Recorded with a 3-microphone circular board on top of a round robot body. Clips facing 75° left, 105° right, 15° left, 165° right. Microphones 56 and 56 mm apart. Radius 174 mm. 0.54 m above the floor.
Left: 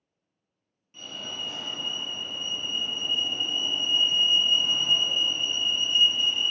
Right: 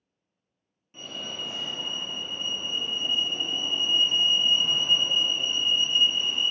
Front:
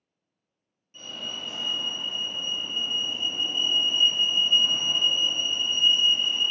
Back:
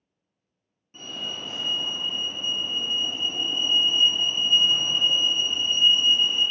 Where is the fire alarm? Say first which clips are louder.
Right 1 dB, back 2 dB; 165° right, 1.9 m.